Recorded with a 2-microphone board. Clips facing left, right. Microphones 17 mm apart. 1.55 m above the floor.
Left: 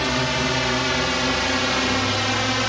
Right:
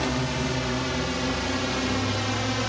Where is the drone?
35° left (ahead or behind); by 2.7 s 25° left (ahead or behind).